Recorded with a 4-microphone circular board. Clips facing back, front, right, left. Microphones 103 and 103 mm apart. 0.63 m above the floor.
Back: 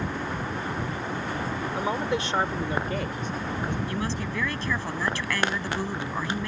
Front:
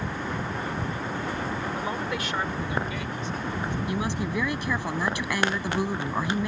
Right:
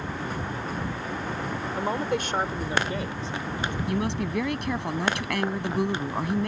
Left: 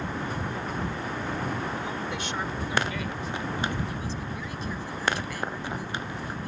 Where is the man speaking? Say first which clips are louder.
Back 3 dB, right 6 dB; 110° right; by 3.8 s 160° right.